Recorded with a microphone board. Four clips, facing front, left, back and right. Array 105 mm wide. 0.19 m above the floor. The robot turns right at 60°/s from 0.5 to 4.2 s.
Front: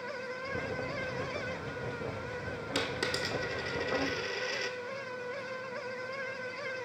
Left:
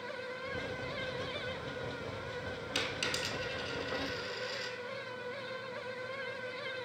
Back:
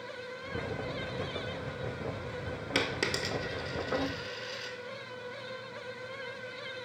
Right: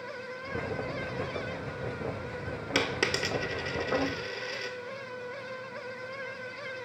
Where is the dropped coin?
125° right, 0.6 m; by 4.8 s 35° right, 0.6 m.